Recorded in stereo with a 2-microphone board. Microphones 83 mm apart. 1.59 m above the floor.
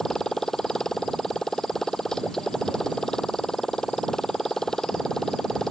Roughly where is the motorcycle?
Centre.